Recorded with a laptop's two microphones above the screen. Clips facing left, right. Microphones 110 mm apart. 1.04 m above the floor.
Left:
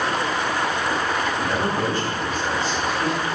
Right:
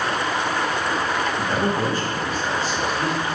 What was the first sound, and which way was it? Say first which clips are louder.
A man speaking: right 1 dB; 30° right (ahead or behind).